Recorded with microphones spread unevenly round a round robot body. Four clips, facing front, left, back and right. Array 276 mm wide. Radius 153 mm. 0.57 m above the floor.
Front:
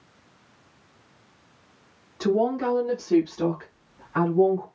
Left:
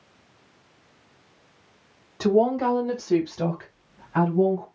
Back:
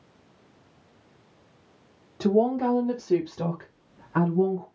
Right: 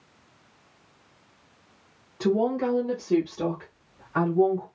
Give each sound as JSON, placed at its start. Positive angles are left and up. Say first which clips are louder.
{"t": 2.2, "sound": "a woman speaking", "louder": "left 4 dB, back 1 dB", "azimuth_deg": 145, "distance_m": 1.1}